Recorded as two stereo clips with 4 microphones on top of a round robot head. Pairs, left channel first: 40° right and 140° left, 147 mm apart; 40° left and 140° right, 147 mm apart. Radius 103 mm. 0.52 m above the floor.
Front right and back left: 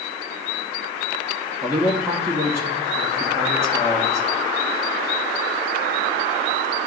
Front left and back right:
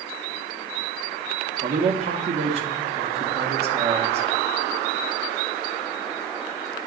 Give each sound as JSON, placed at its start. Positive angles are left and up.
{"t": 1.6, "sound": "a man speaking", "azimuth_deg": -155, "distance_m": 1.1}